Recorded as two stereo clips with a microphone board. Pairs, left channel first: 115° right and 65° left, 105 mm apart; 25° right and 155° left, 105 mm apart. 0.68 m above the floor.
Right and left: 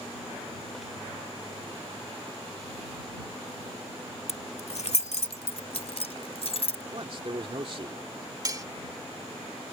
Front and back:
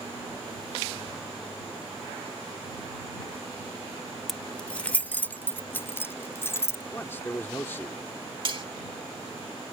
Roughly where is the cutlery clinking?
Behind left.